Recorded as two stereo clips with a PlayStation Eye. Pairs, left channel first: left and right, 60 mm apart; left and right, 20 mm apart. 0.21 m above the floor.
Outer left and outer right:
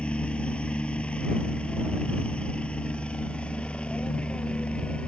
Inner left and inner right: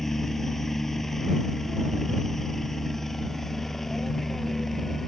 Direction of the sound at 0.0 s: 20° left (ahead or behind).